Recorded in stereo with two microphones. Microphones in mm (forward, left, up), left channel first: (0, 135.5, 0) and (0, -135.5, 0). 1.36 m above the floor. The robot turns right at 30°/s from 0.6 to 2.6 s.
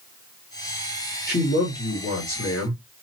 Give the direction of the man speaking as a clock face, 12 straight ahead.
11 o'clock.